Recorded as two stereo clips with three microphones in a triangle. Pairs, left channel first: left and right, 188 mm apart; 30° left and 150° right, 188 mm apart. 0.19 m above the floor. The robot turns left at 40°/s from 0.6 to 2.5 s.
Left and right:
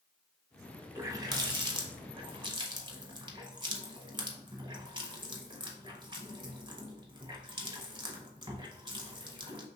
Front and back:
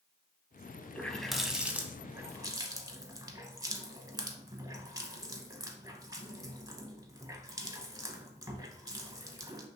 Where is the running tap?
45° right, 0.7 m; by 9.7 s 105° right, 0.7 m.